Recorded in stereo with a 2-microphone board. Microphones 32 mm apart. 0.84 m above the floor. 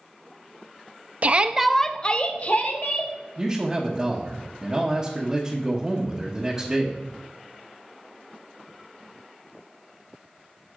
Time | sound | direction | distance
1.2 | a shout | 40° right (ahead or behind) | 0.7 m
3.4 | a man speaking | 15° right (ahead or behind) | 1.2 m